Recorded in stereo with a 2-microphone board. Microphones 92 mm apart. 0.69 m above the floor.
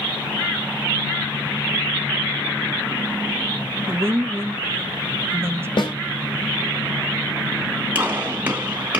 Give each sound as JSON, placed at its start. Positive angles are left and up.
{"t": 3.9, "sound": "a woman speaking", "side_deg": -25, "distance_m": 0.7}
{"t": 5.8, "sound": "a snare drum", "side_deg": 70, "distance_m": 1.9}
{"t": 8.0, "sound": "a gunshot", "side_deg": -20, "distance_m": 3.5}